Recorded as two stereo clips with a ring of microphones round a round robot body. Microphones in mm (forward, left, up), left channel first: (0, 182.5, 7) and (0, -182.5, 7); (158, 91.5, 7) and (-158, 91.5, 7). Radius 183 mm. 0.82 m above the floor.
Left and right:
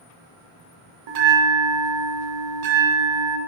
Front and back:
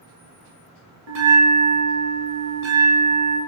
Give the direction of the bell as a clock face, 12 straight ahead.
4 o'clock.